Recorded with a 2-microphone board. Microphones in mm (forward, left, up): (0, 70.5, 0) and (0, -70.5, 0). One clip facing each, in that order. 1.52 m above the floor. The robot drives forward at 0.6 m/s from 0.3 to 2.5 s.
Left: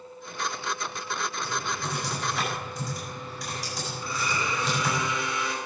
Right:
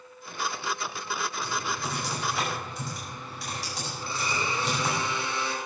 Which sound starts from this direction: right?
A blender, at 4.0 s.